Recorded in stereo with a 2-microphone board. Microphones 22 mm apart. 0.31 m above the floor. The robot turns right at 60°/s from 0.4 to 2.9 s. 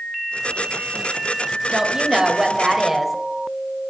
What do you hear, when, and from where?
1.7 s a woman speaking: 80° right, 0.9 m; by 3.1 s 10° right, 0.9 m